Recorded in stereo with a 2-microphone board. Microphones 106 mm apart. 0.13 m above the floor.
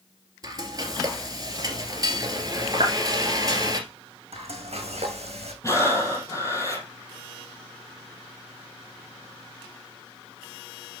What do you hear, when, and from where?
0.4 s frying: 35° right (ahead or behind), 2 m
2.8 s a clap: 60° right (ahead or behind), 2.0 m
4.3 s frying: 75° right (ahead or behind), 2.5 m
5.6 s breathing: 30° left (ahead or behind), 2.5 m